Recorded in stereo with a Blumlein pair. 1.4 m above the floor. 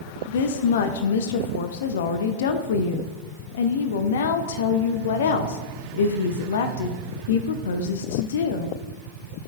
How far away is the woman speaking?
About 0.5 m.